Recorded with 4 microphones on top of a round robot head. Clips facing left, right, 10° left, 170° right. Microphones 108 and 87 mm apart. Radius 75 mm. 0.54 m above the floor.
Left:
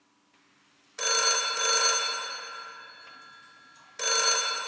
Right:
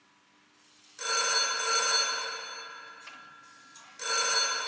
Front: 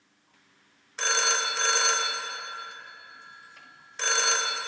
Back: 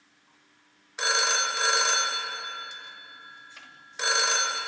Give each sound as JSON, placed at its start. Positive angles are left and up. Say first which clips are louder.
{"t": 1.0, "sound": "a phone ringing", "louder": "left 2 dB, back 1 dB", "azimuth_deg": 115, "distance_m": 1.7}